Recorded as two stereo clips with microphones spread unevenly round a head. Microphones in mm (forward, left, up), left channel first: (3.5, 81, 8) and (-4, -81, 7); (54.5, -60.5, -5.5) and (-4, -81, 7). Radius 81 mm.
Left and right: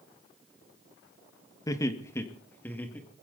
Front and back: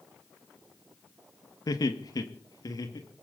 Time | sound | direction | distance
1.7 | laughter | 15° left | 1.6 m